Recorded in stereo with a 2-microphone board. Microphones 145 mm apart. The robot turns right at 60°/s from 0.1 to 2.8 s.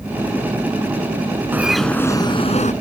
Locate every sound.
1.5 s a bird: 15° right; by 2.7 s 60° left